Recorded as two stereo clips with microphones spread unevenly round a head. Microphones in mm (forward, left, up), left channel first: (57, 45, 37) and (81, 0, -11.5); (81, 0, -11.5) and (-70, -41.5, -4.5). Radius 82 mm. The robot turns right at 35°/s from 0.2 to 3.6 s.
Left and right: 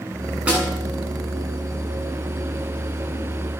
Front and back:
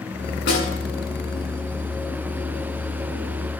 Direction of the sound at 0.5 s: 5° left.